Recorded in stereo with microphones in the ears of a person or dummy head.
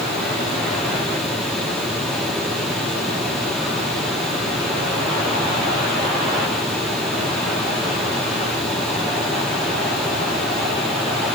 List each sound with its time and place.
Only background noise.